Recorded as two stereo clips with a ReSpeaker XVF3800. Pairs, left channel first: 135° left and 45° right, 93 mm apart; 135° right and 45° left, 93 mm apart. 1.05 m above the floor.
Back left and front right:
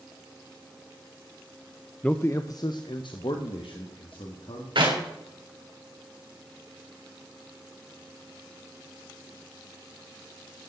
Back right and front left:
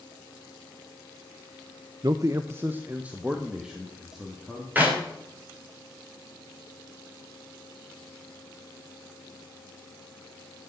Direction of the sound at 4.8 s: 25° right.